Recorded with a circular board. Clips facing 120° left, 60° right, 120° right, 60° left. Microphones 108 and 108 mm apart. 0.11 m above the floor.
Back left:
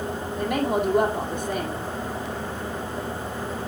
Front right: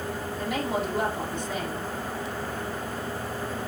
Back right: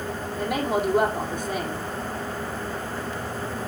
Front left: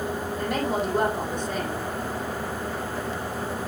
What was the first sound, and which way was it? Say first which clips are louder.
A woman speaking: back left 5 dB, back right 2 dB; 155° left.